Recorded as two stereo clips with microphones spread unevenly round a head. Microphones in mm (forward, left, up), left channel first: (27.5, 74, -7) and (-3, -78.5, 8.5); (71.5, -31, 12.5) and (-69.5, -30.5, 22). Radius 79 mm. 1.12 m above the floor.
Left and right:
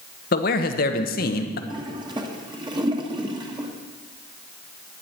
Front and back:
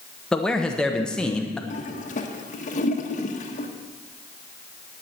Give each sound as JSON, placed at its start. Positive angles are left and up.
{"t": 0.3, "sound": "a man speaking", "azimuth_deg": 80, "distance_m": 1.1}
{"t": 1.7, "sound": "a toilet flushing", "azimuth_deg": -35, "distance_m": 1.4}